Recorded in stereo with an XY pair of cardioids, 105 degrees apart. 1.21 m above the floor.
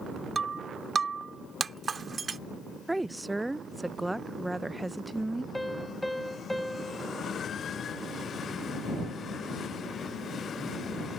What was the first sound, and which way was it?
Breaking glass, 35° right.